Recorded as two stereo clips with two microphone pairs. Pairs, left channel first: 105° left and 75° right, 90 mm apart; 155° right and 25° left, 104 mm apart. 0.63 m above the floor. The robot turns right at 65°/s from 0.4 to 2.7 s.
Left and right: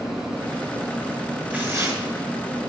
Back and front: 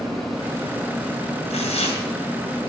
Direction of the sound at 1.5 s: 155° right.